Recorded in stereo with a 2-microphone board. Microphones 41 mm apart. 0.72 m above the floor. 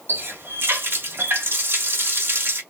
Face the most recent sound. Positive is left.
turn(degrees=-65)  # may be behind; listen again after turning